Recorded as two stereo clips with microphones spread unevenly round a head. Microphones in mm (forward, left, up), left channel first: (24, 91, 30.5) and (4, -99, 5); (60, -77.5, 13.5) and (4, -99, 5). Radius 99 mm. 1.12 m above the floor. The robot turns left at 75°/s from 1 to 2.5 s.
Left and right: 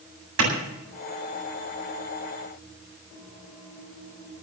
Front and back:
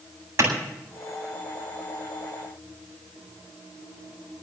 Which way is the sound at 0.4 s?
120° right.